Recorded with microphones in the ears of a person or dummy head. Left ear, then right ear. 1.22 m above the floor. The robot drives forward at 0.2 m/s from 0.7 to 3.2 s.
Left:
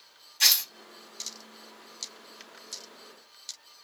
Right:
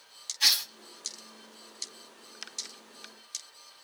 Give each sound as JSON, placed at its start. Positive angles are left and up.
{"t": 0.4, "sound": "tearing paper", "side_deg": 45, "distance_m": 1.5}